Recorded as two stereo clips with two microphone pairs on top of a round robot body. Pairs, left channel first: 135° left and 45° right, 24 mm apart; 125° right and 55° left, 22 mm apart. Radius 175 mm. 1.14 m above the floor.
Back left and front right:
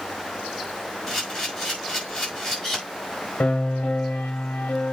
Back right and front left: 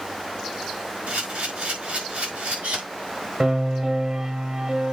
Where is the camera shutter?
55° left, 5 m.